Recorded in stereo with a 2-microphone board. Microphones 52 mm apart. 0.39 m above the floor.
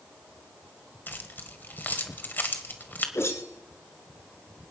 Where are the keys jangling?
40° left (ahead or behind), 1.4 m.